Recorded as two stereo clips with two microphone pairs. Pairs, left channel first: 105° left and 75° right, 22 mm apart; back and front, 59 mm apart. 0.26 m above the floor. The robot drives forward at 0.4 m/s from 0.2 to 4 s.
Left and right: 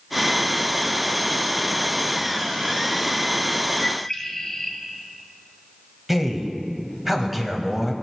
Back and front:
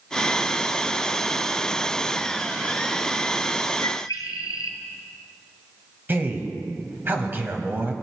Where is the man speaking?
Straight ahead, 1.0 m.